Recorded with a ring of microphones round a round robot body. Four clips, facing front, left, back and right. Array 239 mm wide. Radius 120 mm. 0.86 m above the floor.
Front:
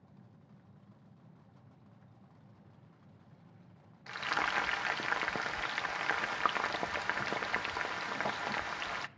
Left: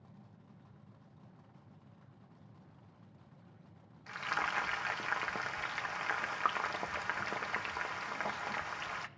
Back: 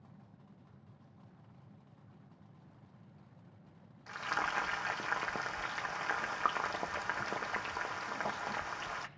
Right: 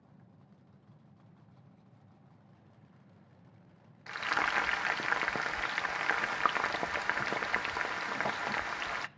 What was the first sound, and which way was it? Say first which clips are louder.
Frying: right 4 dB, front 1 dB; 65° right.